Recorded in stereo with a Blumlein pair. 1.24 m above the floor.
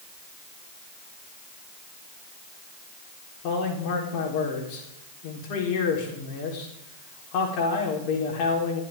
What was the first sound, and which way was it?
A man speaking, 45° left.